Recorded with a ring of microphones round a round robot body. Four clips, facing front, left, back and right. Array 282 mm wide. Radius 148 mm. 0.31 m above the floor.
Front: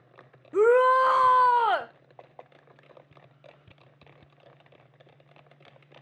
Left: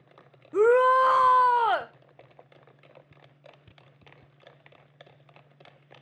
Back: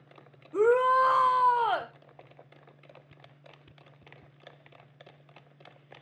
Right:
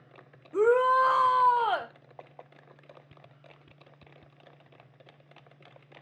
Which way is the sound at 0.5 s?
45° left.